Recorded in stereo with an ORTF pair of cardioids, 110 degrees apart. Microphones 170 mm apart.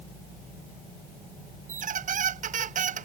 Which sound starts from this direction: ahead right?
A squeak, at 1.7 s.